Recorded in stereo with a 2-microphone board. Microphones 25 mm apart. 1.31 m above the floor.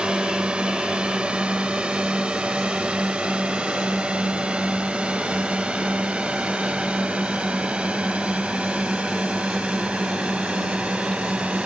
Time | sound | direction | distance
0.0 | a drone | 45° right (ahead or behind) | ?